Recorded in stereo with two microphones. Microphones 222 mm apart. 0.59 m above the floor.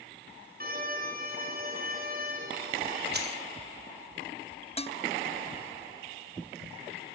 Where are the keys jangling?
50° right (ahead or behind), 3 m.